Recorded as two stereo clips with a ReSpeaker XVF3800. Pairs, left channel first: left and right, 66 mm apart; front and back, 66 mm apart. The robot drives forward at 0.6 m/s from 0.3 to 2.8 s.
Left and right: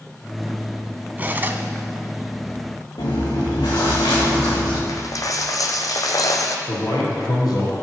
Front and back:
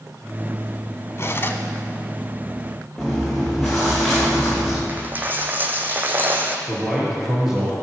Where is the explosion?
No explosion in this recording.